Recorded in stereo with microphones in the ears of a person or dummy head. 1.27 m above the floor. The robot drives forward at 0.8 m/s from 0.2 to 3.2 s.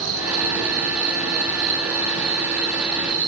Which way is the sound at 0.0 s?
85° right.